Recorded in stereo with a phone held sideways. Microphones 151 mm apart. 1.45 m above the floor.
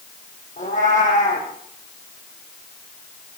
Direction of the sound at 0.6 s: 55° left (ahead or behind).